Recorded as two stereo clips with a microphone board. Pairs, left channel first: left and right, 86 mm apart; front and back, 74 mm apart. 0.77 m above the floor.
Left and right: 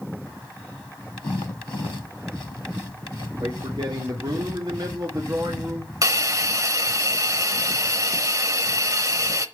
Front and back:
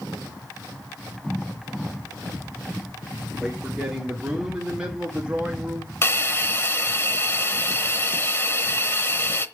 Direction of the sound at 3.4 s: 100° right.